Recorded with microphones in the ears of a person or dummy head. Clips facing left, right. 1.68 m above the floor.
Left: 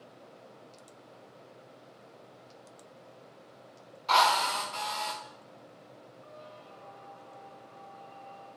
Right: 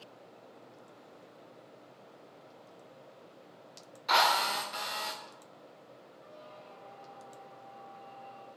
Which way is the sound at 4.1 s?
20° right (ahead or behind).